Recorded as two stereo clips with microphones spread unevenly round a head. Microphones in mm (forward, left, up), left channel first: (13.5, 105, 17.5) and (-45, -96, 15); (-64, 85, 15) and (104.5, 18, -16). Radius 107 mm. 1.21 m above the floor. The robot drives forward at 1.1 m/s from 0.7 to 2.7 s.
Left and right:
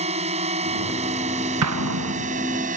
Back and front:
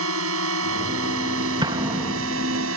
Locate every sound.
0.0 s a drone: 45° right; by 2.8 s 50° right
1.6 s an explosion: 90° right; by 2.3 s 120° right